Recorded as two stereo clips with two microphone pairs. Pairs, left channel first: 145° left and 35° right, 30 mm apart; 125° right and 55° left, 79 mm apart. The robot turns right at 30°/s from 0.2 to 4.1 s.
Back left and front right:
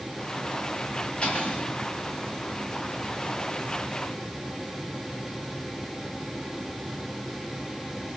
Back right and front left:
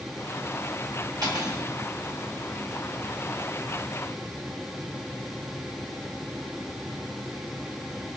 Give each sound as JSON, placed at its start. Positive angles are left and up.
{"t": 1.2, "sound": "cutlery clinking", "azimuth_deg": 90, "distance_m": 3.0}